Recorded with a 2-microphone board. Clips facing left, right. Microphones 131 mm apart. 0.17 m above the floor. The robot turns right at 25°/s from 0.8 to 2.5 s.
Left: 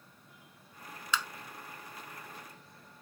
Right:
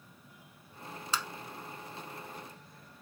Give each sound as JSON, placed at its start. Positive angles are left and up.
{"t": 1.1, "sound": "tapping", "side_deg": -40, "distance_m": 0.9}